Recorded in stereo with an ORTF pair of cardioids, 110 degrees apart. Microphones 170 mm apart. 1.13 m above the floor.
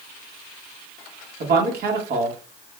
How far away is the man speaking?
About 1.7 m.